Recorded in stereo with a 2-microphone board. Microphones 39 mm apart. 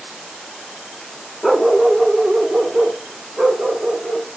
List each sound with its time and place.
1.4 s a dog barking: centre (ahead or behind), 1.1 m; by 4.3 s 30° right (ahead or behind), 3.5 m